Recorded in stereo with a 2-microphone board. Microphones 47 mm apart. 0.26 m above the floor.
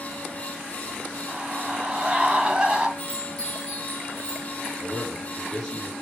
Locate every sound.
1.3 s a scream: 25° right (ahead or behind), 2 m
3.0 s a chime: 15° left (ahead or behind), 5 m
4.8 s a man speaking: 10° left (ahead or behind), 4.5 m